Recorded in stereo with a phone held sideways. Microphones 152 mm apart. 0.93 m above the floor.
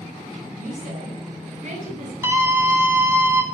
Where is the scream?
15° right (ahead or behind), 2 m.